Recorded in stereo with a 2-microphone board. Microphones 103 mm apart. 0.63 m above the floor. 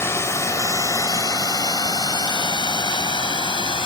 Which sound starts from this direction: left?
A drone, at 0.0 s.